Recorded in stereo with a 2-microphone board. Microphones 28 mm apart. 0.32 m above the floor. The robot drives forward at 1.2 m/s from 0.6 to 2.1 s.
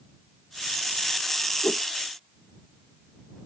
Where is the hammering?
I don't hear hammering.